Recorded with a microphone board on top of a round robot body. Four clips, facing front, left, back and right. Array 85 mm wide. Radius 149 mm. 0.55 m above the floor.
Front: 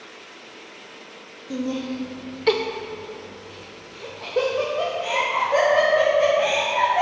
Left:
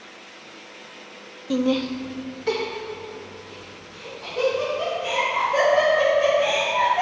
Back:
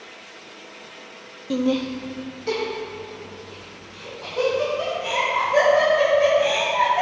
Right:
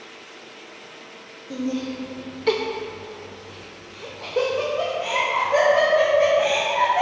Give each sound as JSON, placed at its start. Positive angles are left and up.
{"t": 1.5, "sound": "laughter", "azimuth_deg": 125, "distance_m": 0.8}